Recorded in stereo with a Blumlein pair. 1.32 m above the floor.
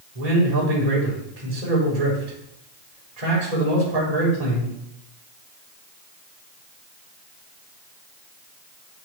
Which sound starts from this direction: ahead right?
A man speaking, at 0.1 s.